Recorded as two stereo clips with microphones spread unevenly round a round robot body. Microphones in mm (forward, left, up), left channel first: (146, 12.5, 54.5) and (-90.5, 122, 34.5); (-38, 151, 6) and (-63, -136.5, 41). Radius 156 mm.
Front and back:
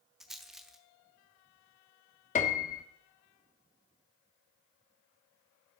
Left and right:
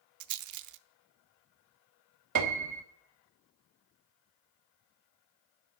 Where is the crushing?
I don't hear crushing.